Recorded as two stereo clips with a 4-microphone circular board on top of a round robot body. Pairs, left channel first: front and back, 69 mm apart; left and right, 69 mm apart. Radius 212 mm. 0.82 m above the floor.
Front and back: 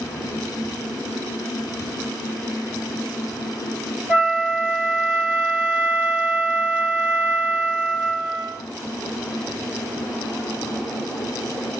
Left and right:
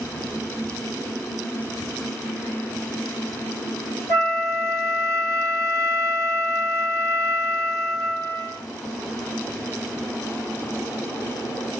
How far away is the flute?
About 1.8 m.